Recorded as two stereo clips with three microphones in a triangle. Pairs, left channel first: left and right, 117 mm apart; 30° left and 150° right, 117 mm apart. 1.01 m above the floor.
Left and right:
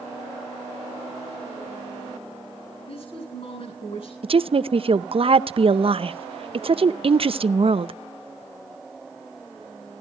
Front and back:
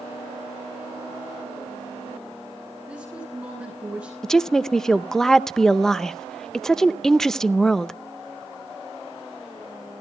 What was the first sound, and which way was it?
A woman speaking, 130° left.